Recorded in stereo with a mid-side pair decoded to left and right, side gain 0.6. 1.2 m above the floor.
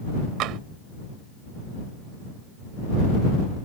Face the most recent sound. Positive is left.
turn(degrees=-65)